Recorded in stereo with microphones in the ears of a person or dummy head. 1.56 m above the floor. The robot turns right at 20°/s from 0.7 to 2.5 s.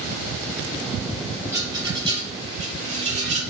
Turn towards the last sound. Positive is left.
turn(degrees=-35)  # may be behind; listen again after turning